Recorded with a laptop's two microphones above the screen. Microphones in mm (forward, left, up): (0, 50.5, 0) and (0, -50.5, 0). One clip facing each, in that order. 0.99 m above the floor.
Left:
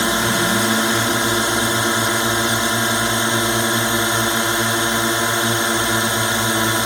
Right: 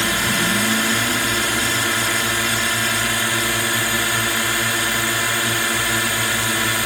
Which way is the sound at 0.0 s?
25° left (ahead or behind).